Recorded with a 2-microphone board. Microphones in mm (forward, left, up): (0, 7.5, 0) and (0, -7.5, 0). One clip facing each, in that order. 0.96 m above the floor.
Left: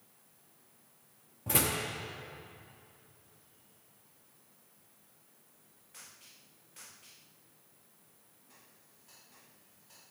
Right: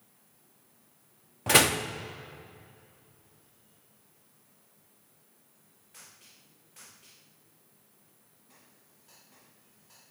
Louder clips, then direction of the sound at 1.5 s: Right 9 dB; 70° right (ahead or behind).